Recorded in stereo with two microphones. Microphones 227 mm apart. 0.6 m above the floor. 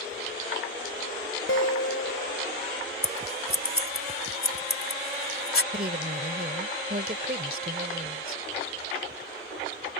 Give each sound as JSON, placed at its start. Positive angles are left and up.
{"t": 1.5, "sound": "a guitar", "side_deg": 65}
{"t": 3.0, "sound": "scissors", "side_deg": 65}
{"t": 5.7, "sound": "a woman speaking", "side_deg": -40}